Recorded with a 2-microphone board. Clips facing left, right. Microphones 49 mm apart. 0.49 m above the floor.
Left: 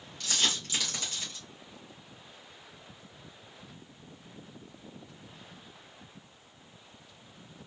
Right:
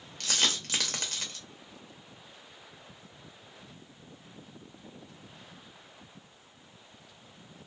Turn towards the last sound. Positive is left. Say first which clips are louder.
# right 1 dB
turn(degrees=-60)  # may be behind; listen again after turning